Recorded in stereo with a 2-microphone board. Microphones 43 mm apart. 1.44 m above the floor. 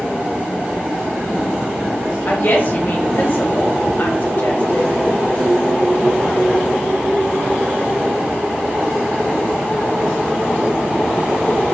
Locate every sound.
2.2 s a woman speaking: 40° left (ahead or behind), 0.9 m